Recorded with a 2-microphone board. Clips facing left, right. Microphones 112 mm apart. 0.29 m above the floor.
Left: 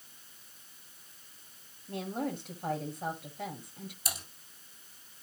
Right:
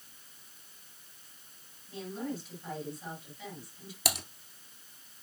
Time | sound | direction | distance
1.9 | a woman speaking | 55° left (ahead or behind) | 2.5 m
4.0 | typing on a keyboard | 75° right (ahead or behind) | 1.7 m